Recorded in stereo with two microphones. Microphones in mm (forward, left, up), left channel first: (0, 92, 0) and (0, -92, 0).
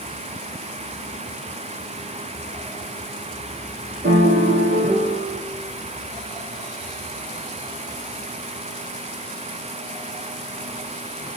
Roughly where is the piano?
Right.